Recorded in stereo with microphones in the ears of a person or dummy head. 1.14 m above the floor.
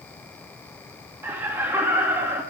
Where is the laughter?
10° right (ahead or behind), 1.8 m.